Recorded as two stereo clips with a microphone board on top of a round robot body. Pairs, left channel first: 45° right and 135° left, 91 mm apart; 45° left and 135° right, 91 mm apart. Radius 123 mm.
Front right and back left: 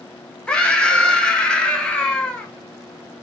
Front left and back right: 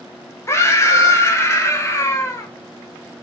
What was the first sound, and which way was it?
A scream, 25° left.